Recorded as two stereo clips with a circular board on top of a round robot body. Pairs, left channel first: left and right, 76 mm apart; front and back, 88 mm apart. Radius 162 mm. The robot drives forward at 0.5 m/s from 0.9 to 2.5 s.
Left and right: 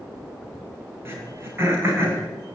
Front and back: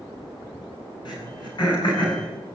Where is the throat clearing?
35° right, 7.5 m.